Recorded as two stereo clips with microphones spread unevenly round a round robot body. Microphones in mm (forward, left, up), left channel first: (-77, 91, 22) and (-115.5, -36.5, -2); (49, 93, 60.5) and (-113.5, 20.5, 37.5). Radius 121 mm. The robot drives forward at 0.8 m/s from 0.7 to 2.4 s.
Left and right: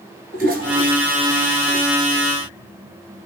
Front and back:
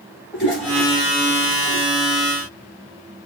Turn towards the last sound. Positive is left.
turn(degrees=-110)